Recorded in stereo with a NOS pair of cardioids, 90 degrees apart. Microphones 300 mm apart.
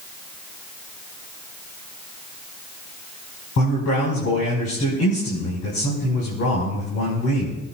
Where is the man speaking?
55° left, 6 m.